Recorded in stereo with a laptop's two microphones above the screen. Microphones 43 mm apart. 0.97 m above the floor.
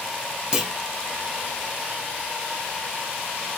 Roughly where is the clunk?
Centre.